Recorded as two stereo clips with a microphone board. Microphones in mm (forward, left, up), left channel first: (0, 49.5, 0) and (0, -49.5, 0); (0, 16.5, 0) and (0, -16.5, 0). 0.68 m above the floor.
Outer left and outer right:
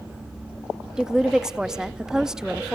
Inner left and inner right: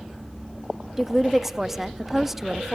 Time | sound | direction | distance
1.0 | a woman speaking | 5° right (ahead or behind) | 0.5 m